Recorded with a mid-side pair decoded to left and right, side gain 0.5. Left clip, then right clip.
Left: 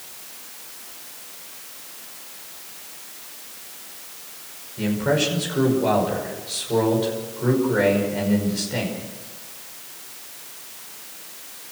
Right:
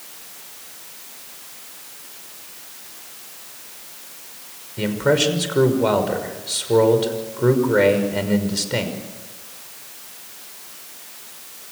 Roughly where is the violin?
No violin in this recording.